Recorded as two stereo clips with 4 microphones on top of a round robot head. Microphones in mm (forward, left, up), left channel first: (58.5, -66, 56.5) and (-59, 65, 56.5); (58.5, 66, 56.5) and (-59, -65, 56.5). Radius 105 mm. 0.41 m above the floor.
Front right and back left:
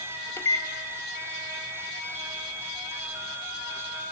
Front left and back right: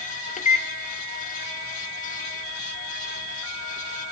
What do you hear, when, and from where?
0.4 s a microwave: 20° left, 0.7 m